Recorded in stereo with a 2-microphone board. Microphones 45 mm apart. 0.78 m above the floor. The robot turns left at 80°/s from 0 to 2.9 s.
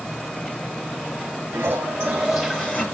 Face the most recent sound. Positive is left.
turn(degrees=140)